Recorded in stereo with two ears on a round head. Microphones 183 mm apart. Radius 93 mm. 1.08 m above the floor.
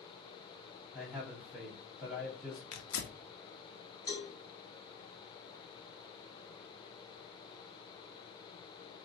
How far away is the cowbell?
About 3 m.